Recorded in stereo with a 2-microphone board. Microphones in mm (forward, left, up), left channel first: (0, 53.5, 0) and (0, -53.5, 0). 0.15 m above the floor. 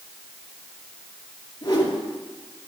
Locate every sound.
1.6 s a whoosh: 35° left (ahead or behind), 3 m